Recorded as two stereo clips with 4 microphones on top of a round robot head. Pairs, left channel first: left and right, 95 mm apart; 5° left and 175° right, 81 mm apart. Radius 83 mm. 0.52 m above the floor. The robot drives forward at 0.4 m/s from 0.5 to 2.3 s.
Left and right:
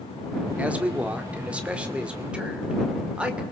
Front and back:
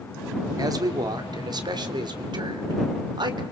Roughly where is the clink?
I don't hear a clink.